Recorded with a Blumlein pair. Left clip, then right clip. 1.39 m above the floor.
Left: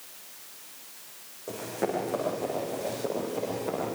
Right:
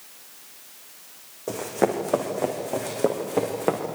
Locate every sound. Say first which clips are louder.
1.5 s running footsteps: right 7 dB; 65° right, 5.5 m; by 3.8 s 55° right, 7 m